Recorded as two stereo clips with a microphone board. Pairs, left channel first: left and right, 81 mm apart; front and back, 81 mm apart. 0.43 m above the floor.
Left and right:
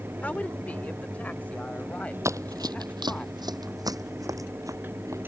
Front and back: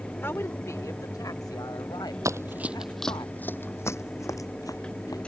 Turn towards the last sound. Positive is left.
turn(degrees=-40)